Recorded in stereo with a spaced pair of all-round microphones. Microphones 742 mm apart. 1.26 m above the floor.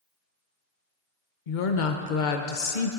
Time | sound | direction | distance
1.5 | a woman speaking | 85° left | 0.9 m